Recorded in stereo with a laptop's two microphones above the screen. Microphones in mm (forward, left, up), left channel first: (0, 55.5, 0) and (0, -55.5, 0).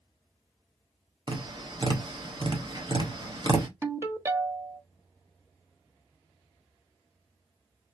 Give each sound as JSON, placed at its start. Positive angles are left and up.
{"t": 1.3, "sound": "tapping", "side_deg": -45, "distance_m": 0.8}
{"t": 3.8, "sound": "a ringtone", "side_deg": -25, "distance_m": 1.1}